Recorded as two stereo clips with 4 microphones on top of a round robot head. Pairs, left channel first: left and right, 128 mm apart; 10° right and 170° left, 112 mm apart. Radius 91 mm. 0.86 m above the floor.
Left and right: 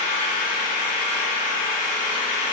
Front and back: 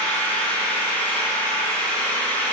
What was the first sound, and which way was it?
An engine running, 70° left.